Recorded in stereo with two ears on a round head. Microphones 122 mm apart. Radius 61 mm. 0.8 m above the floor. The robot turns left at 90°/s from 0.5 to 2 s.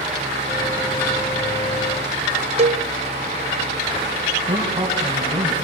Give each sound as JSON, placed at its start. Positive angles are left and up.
{"t": 2.6, "sound": "a cowbell", "side_deg": -45, "distance_m": 0.9}
{"t": 4.5, "sound": "a man speaking", "side_deg": -30, "distance_m": 8.5}